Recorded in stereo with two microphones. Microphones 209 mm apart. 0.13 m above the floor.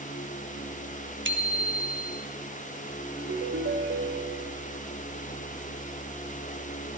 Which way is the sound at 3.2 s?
75° right (ahead or behind).